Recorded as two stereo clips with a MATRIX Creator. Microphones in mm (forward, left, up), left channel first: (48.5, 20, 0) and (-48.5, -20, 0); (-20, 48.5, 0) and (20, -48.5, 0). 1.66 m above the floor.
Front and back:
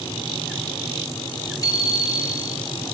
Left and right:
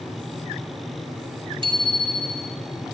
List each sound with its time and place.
1.6 s a bicycle bell: 30° right, 3 m